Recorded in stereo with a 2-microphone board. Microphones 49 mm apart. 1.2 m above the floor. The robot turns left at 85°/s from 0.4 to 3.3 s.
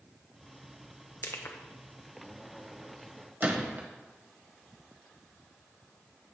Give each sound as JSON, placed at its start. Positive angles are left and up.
{"t": 1.2, "sound": "crushing", "side_deg": 70, "distance_m": 0.8}
{"t": 3.4, "sound": "a gunshot", "side_deg": -45, "distance_m": 1.2}